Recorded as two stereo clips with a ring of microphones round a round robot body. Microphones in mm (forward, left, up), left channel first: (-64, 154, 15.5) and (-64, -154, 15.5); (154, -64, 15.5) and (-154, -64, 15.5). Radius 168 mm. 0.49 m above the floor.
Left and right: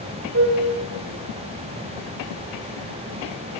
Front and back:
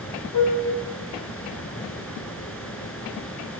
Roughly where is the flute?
Ahead right.